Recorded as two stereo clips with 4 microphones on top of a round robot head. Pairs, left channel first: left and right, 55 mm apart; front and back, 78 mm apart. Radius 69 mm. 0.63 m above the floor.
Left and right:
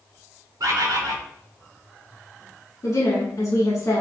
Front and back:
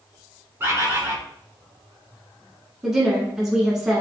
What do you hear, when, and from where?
0.6 s a bird: 115° right, 1.0 m
2.8 s a woman speaking: 115° left, 1.3 m